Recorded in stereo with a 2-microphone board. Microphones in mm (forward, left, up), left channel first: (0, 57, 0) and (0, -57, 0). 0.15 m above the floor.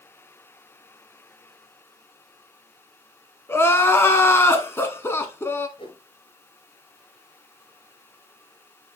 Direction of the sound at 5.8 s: 50° left (ahead or behind).